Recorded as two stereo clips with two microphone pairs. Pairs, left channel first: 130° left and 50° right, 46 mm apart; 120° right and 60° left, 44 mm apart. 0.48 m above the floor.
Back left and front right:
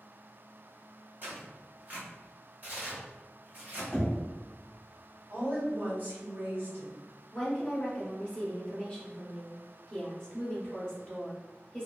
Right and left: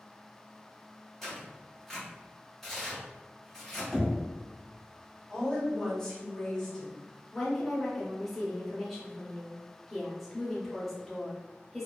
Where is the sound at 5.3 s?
50° right, 1.6 m.